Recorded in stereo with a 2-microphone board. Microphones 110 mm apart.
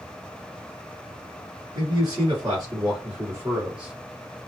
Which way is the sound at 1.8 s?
35° right (ahead or behind).